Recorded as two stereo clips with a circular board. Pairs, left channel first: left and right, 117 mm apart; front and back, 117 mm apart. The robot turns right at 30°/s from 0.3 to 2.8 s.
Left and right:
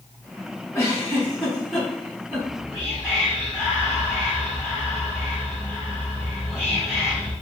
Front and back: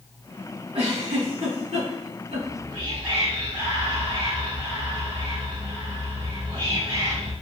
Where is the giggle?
150° left, 1.9 m; by 2.5 s 155° right, 1.9 m.